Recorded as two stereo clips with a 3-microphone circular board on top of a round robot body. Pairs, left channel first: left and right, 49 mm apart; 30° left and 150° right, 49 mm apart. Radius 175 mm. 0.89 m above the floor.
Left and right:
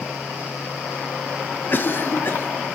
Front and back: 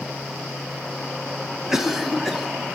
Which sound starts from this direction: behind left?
A cough, at 1.7 s.